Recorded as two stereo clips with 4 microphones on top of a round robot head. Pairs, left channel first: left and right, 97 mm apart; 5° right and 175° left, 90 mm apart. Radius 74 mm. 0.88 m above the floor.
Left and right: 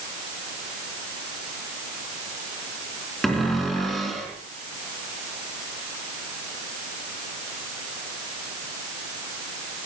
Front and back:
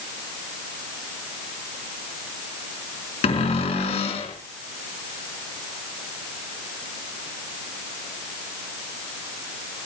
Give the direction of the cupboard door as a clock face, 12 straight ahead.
12 o'clock.